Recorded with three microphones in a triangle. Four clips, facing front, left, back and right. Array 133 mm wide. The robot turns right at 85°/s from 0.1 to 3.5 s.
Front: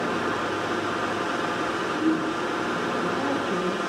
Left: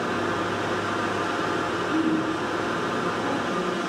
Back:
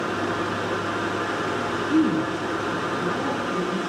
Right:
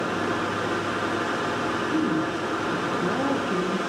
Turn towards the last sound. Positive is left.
turn(degrees=-50)